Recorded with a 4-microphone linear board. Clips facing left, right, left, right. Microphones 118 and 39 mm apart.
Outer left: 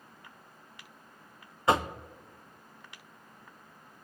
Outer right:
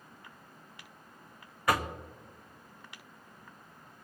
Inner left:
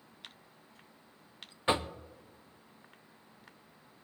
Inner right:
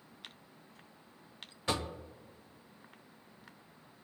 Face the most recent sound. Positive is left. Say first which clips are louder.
# outer left 3 dB, inner left 5 dB
turn(degrees=25)  # may be behind; listen again after turning